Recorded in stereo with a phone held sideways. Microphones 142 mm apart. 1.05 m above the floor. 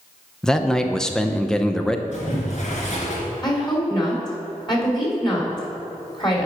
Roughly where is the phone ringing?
No phone ringing in this recording.